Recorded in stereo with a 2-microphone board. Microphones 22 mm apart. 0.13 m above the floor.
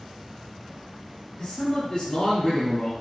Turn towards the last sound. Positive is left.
turn(degrees=25)  # may be behind; listen again after turning